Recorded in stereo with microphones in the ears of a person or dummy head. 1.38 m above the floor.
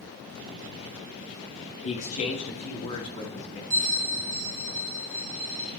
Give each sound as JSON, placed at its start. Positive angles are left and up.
{"t": 1.8, "sound": "a man speaking", "side_deg": 30, "distance_m": 1.8}
{"t": 3.7, "sound": "a bell", "side_deg": -65, "distance_m": 3.0}